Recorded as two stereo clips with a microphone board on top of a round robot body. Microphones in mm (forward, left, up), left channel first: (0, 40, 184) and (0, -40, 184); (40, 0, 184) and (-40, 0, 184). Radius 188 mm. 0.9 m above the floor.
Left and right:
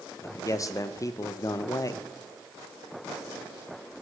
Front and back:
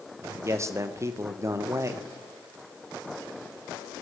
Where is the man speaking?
135° left, 1.3 m.